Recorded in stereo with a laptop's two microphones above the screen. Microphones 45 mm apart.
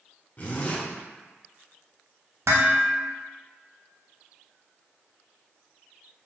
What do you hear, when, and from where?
0.4 s a zipper: 30° left (ahead or behind), 0.8 m
2.5 s dishes clattering: 70° right (ahead or behind), 0.7 m